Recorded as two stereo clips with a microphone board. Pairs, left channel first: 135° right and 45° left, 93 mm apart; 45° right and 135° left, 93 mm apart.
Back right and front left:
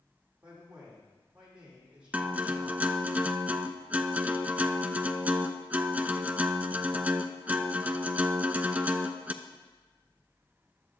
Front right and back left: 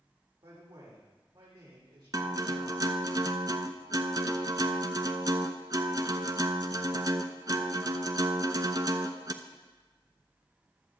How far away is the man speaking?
About 6 m.